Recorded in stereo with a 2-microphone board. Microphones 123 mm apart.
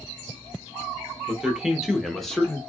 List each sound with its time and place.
1.3 s a man speaking: 10° right (ahead or behind), 1.1 m; by 2.6 s 5° left (ahead or behind), 1.0 m